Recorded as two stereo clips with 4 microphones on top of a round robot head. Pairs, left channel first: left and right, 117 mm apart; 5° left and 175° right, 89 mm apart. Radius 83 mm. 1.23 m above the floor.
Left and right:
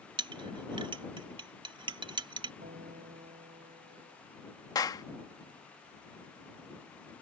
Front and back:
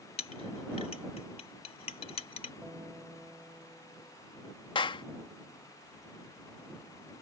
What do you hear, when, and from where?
0.2 s a clink: 40° right
2.6 s a guitar: 100° right
4.8 s a clap: 30° left